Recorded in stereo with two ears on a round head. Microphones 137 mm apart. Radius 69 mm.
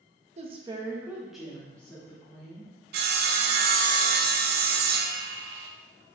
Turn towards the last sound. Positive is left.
turn(degrees=-65)  # may be behind; listen again after turning